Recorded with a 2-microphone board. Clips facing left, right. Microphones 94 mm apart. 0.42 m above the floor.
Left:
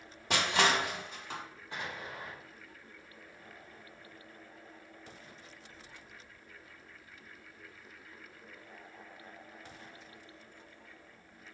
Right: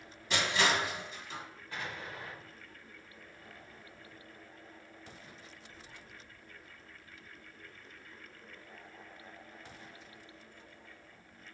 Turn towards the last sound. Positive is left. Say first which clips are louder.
# left 1 dB
turn(degrees=20)  # may be behind; listen again after turning